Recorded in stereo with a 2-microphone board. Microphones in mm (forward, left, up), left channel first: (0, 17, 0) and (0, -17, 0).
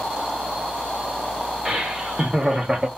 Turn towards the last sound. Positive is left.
turn(degrees=-20)  # may be behind; listen again after turning